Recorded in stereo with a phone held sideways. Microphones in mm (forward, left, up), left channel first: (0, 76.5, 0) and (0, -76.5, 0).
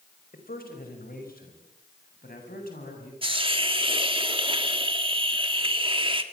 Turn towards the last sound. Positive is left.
turn(degrees=-35)  # may be behind; listen again after turning